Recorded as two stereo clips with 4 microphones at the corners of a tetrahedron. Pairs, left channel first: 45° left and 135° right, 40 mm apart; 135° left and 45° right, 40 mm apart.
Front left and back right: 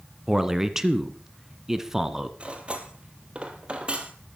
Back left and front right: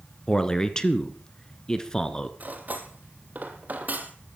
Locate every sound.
0.3 s a man speaking: 170° left, 1.4 m
2.4 s cutlery clinking: 80° right, 2 m